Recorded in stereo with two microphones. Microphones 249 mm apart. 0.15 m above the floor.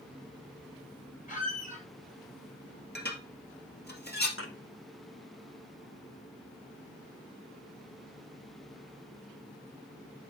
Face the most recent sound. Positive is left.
turn(degrees=60)  # may be behind; listen again after turning